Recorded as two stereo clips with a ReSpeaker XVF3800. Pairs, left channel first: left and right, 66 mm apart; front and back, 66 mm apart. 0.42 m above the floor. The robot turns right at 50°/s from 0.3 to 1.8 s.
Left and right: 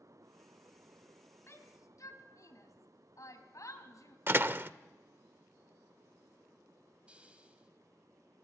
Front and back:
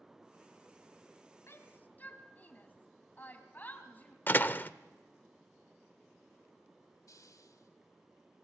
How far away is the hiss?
About 1.9 m.